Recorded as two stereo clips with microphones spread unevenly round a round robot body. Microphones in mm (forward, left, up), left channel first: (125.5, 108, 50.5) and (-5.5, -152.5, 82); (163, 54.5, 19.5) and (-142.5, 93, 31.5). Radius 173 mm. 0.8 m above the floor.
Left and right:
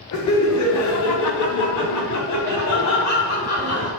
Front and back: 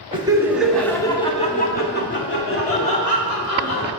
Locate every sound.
0.1 s laughter: 100° left, 1.4 m; by 3.9 s 25° left, 2.5 m